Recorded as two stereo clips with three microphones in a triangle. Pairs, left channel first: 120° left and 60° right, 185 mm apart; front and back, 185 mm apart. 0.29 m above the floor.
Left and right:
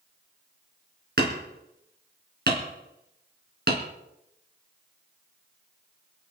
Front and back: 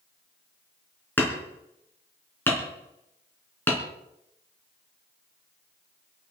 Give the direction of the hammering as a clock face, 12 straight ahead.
3 o'clock.